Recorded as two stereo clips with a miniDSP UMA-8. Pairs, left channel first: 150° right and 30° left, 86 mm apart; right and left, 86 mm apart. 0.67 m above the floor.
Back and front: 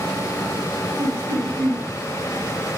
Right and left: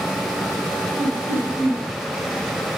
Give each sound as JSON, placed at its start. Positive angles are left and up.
{"t": 1.0, "sound": "laughter", "azimuth_deg": -50, "distance_m": 5.0}